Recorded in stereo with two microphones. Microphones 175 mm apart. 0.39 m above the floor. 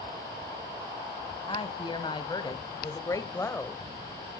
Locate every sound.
1.5 s a woman speaking: 30° left (ahead or behind), 2.5 m; by 3.8 s 10° left (ahead or behind), 1.4 m